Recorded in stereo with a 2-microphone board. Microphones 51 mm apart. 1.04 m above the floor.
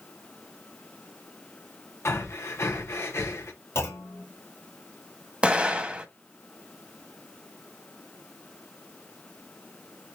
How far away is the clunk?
About 1.6 m.